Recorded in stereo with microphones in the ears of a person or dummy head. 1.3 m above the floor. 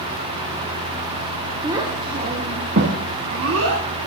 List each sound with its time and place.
1.6 s a child speaking: 10° right (ahead or behind), 1.5 m; by 3.8 s 75° right (ahead or behind), 2.0 m